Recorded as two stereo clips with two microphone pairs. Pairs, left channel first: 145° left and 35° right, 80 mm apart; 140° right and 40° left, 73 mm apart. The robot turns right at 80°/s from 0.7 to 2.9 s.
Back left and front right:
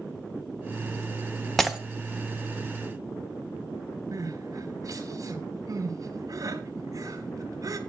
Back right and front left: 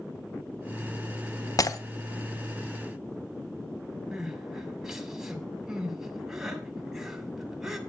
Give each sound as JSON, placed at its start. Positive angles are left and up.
{"t": 1.6, "sound": "breaking glass", "azimuth_deg": -130, "distance_m": 0.9}
{"t": 4.1, "sound": "crying", "azimuth_deg": -35, "distance_m": 1.8}